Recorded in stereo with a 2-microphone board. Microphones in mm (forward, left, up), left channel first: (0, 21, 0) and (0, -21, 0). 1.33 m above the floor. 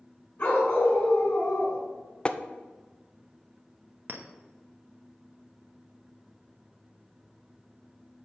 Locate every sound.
0.4 s a dog barking: 45° left (ahead or behind), 3.5 m
2.2 s tapping: 25° left (ahead or behind), 0.5 m
4.1 s a clink: 55° right (ahead or behind), 1.0 m